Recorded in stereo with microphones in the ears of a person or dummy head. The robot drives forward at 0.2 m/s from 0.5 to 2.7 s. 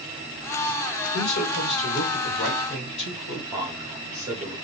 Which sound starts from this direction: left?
A man speaking, at 1.1 s.